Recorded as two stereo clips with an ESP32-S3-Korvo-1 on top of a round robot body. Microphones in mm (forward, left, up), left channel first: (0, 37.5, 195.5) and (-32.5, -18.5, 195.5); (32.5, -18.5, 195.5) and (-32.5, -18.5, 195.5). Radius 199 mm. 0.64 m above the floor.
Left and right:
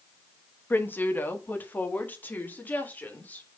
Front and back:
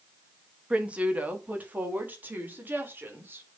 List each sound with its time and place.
0.7 s a woman speaking: 115° left, 1.7 m; by 3.5 s 125° left, 3 m